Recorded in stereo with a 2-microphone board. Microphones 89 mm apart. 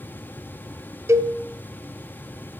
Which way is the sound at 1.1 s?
30° right (ahead or behind).